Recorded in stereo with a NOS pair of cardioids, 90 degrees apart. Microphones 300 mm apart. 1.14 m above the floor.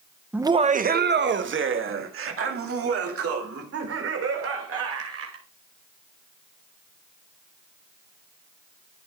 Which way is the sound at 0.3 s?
5° right.